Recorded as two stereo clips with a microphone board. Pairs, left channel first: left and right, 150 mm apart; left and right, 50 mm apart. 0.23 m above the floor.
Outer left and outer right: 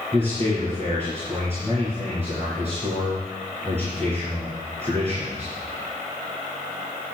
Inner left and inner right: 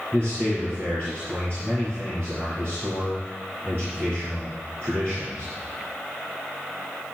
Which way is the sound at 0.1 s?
45° right (ahead or behind).